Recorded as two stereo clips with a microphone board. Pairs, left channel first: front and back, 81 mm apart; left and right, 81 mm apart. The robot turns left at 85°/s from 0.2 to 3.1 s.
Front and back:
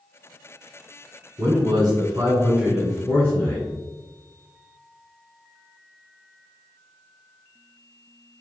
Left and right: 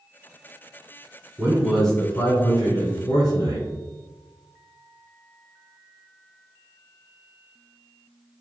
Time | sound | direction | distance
1.4 | a man speaking | 145° right | 1.5 m